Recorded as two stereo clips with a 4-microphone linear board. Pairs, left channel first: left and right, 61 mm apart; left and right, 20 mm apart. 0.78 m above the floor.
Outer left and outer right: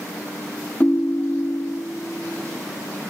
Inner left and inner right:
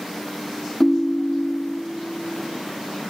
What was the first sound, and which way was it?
A ringtone, 25° left (ahead or behind).